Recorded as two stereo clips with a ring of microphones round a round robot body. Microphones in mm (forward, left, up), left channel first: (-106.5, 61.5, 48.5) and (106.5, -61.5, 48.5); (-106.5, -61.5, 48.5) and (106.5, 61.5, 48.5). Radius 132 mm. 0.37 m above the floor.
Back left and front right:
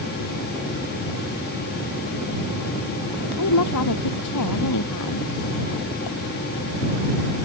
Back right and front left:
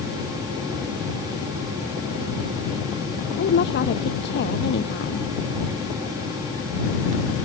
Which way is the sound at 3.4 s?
160° left.